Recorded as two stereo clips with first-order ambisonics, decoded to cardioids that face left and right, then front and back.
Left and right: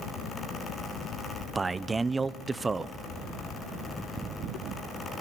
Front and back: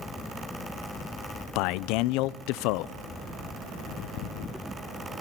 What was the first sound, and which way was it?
A man speaking, 15° right.